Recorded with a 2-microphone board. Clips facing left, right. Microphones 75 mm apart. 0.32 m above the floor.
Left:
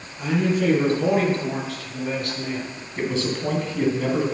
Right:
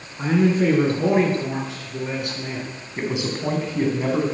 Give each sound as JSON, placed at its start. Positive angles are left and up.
{"t": 0.2, "sound": "a man speaking", "side_deg": -40, "distance_m": 3.5}
{"t": 3.0, "sound": "a man speaking", "side_deg": -15, "distance_m": 3.0}